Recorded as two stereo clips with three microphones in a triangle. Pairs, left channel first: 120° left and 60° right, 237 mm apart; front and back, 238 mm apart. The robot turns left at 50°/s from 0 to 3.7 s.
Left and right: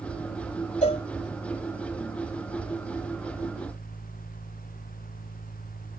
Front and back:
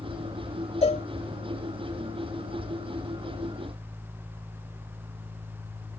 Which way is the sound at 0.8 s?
65° left.